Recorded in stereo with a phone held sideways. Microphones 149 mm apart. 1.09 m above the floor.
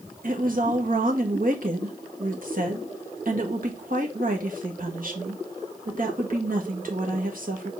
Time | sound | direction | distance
0.2 | a woman speaking | 70° right (ahead or behind) | 1.8 m